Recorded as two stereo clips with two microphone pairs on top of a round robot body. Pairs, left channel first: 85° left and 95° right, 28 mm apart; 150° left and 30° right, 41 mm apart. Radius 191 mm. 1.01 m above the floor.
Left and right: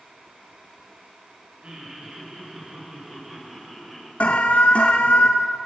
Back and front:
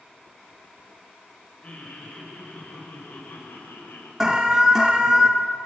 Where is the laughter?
145° right, 5 m; by 4.1 s 175° left, 5 m.